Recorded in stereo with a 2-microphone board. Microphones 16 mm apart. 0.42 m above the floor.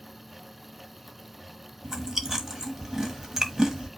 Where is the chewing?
35° right (ahead or behind), 1.2 m.